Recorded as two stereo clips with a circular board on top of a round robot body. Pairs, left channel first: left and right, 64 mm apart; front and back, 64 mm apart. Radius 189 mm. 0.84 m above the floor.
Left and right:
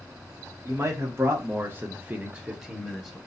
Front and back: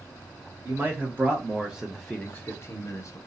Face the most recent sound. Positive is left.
turn(degrees=5)